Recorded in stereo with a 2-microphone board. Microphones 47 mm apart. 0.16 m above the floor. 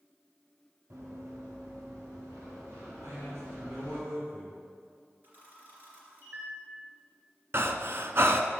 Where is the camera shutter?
40° right (ahead or behind), 2.5 m.